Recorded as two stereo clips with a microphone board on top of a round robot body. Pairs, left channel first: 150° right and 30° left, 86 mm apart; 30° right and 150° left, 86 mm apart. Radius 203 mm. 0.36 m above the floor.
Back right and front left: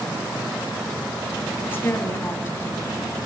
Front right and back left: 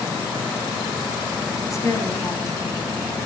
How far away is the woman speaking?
About 4.5 m.